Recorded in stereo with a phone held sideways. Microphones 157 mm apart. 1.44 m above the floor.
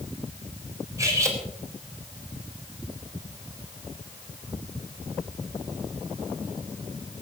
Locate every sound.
1.0 s cutlery clinking: 20° right (ahead or behind), 4 m